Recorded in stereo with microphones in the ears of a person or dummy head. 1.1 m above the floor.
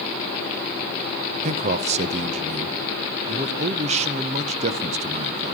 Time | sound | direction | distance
1.4 | a man speaking | 35° right (ahead or behind) | 0.5 m